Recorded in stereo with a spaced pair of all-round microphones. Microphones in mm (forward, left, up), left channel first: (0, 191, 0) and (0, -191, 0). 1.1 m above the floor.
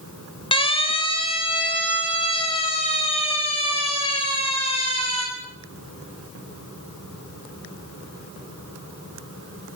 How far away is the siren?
About 3 m.